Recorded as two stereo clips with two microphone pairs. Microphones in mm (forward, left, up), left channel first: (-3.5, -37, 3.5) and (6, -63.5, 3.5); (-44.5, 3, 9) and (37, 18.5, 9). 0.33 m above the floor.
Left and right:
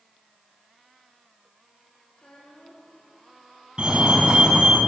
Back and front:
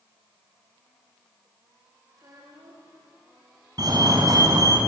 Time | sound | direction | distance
2.1 | a child speaking | 55° left | 8.5 m
3.8 | a fire alarm | 20° right | 4 m